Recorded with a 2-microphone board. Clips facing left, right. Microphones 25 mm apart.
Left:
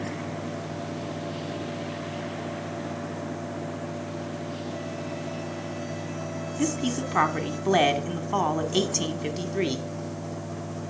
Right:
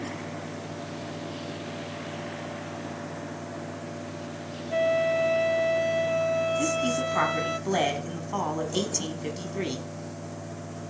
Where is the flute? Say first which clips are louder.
Right 10 dB; 75° right (ahead or behind), 0.9 m.